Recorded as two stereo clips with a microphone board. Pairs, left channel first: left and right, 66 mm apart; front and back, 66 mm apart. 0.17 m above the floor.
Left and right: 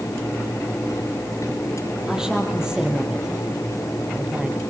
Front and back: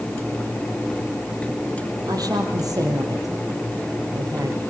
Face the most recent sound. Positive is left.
turn(degrees=-160)